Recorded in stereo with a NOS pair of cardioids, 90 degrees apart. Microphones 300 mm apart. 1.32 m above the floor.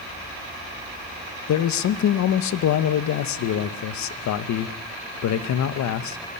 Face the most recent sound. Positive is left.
turn(degrees=70)